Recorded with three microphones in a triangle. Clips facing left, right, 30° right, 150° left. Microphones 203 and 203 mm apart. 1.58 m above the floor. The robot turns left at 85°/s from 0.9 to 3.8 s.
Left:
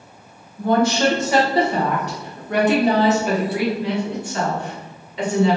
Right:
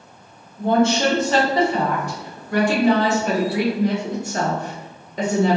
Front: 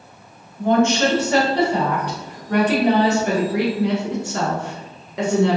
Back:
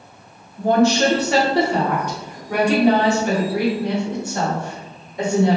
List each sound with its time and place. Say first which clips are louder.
0.6 s a woman speaking: even, back 1 dB; 155° right, 1.2 m; by 5.6 s 40° right, 1.2 m